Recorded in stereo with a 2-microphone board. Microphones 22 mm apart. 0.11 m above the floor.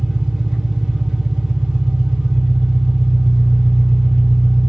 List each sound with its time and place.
0.0 s an engine running: 25° right (ahead or behind), 1.4 m